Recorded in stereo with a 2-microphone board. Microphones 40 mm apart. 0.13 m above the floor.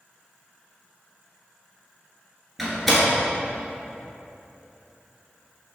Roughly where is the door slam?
Centre.